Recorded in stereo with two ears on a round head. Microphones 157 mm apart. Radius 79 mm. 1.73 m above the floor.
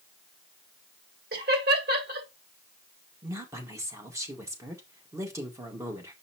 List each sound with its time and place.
1.3 s laughter: 55° right (ahead or behind), 2.5 m
3.2 s a woman speaking: 15° right (ahead or behind), 1.7 m